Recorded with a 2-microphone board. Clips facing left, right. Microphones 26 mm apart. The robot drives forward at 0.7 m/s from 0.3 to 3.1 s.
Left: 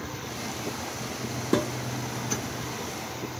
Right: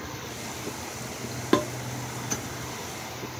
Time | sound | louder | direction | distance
1.5 | dishes clattering | right 2 dB | 50° right (ahead or behind) | 1.1 m